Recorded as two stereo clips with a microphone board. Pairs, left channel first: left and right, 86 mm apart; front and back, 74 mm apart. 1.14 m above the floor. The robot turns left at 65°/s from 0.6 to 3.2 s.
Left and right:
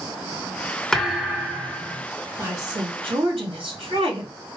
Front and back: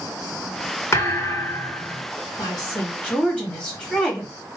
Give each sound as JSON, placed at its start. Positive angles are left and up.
{"t": 0.9, "sound": "a thud", "azimuth_deg": 10, "distance_m": 0.9}
{"t": 2.4, "sound": "a woman speaking", "azimuth_deg": -25, "distance_m": 2.0}